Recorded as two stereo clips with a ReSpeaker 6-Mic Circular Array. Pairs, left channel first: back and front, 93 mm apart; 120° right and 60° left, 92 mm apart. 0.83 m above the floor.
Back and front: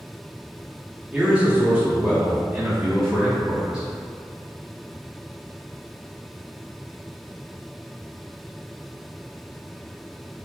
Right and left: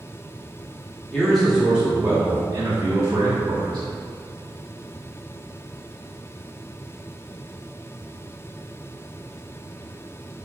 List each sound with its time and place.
1.1 s a man speaking: 50° right, 0.9 m; by 3.9 s 70° left, 1.5 m